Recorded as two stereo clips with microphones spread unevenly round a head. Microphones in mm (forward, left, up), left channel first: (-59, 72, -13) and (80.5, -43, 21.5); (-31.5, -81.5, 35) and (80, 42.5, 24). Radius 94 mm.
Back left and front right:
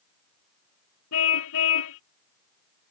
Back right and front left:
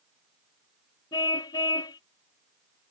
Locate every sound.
1.1 s a car horn: 160° left